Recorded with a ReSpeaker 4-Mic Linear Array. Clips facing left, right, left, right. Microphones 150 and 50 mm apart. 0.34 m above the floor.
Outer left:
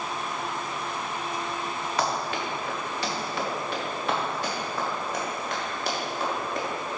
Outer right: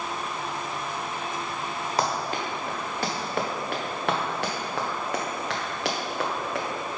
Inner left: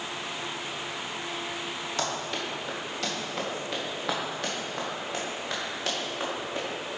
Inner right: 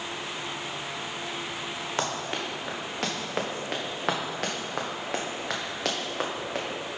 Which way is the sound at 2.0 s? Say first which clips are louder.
Outer right 1 dB, inner right 1 dB; 35° right (ahead or behind).